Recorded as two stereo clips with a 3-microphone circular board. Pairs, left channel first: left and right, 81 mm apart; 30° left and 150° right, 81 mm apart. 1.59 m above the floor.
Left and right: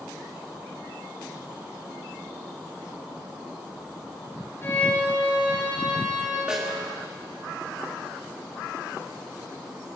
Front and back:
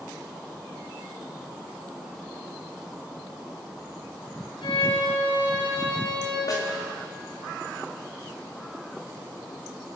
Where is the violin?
25° left, 8.5 m.